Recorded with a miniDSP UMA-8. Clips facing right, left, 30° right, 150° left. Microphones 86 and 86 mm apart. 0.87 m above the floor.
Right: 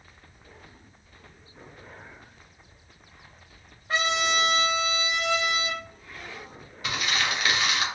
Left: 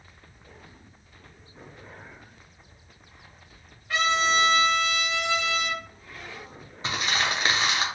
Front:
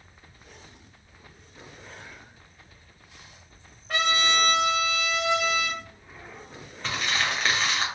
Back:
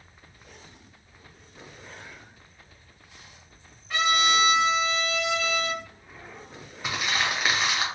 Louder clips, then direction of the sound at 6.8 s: Left 1 dB, even; 80° left.